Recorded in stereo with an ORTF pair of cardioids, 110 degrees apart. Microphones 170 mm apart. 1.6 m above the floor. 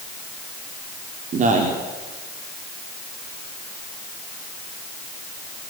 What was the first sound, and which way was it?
A man speaking, 45° right.